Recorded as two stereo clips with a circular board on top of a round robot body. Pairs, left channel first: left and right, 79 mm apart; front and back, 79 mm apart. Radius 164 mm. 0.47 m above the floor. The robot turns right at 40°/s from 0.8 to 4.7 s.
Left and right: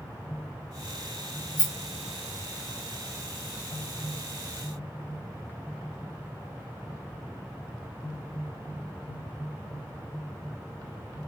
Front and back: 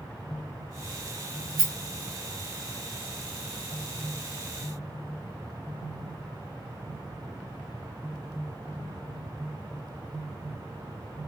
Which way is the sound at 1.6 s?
130° left.